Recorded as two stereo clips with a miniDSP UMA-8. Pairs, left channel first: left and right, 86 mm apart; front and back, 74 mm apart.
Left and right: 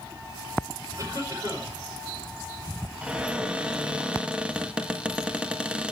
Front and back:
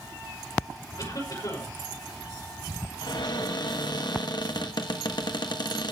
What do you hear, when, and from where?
1.0 s a cough: 35° right, 5.5 m
3.0 s a cupboard door: 10° right, 1.3 m